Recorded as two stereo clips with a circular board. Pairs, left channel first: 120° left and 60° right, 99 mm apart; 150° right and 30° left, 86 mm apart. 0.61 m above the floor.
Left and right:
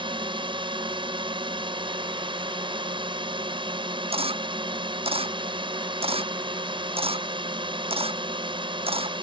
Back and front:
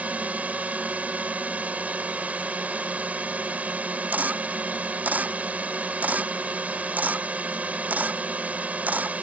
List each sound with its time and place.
0.0 s a drone: 40° right
4.1 s a camera shutter: 40° right